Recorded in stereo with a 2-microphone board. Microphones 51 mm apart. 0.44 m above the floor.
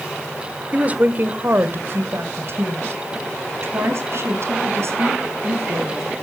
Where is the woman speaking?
30° right (ahead or behind), 1.2 m; by 6.1 s 60° right (ahead or behind), 4.5 m.